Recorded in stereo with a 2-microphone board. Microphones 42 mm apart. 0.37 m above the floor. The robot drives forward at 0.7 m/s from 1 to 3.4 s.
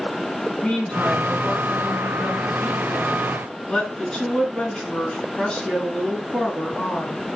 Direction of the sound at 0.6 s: 25° left (ahead or behind).